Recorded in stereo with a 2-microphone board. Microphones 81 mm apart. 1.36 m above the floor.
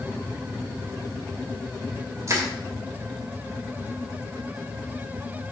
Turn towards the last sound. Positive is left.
turn(degrees=-40)  # may be behind; listen again after turning